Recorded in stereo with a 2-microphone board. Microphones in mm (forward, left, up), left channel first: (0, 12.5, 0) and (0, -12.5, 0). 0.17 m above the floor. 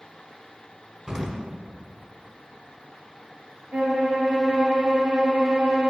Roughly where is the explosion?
Right.